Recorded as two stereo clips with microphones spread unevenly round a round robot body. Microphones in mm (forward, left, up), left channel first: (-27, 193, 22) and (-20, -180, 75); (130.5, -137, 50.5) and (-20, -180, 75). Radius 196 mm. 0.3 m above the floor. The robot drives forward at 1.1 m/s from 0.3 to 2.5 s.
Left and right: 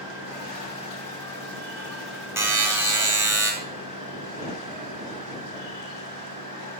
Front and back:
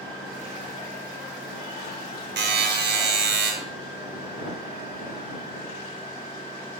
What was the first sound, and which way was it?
A buzzer, 175° right.